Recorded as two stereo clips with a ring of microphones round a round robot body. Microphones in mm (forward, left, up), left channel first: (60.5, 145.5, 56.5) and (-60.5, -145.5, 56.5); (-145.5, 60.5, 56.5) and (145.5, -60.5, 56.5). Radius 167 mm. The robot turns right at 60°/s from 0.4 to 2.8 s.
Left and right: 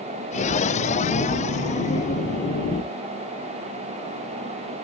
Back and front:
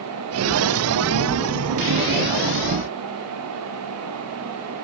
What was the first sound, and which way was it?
Only background noise.